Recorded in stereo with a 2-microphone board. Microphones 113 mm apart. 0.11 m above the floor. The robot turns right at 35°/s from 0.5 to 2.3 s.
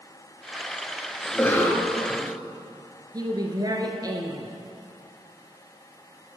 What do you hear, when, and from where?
1.2 s a cough: 25° left, 1.4 m; by 2.3 s 60° left, 1.4 m
3.1 s a woman speaking: 35° right (ahead or behind), 1.7 m